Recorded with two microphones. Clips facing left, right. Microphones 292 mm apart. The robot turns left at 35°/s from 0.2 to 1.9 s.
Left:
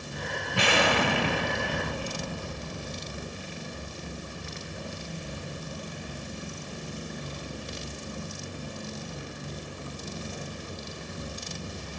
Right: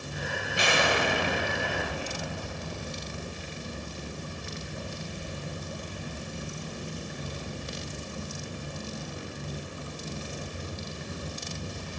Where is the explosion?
105° left, 1.1 m; by 3.4 s 55° left, 1.1 m.